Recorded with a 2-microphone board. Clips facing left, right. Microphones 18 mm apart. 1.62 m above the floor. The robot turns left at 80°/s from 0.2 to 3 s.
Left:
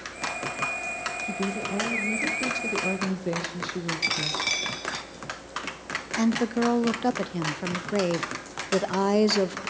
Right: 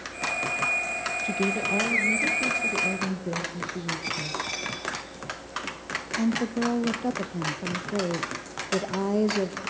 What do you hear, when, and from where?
1.2 s a woman speaking: 105° right, 1.7 m; by 4.4 s 115° left, 1.7 m
4.0 s a dropped coin: 75° left (ahead or behind), 4.5 m
6.2 s a woman speaking: 45° left (ahead or behind), 0.7 m